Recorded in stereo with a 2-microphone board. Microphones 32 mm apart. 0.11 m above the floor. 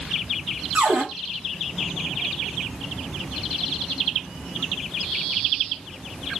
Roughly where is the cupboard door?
Right.